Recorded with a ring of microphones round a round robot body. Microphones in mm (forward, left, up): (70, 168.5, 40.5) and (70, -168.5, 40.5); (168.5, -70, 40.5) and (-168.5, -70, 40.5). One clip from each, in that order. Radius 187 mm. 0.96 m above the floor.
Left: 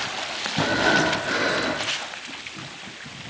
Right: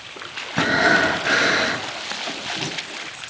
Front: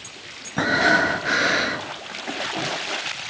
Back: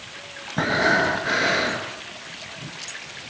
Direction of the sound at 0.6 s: 70° right.